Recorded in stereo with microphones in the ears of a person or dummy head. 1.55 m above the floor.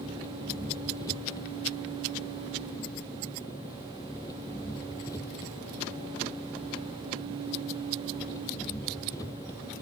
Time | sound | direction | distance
0.0 | an engine running | 20° left (ahead or behind) | ?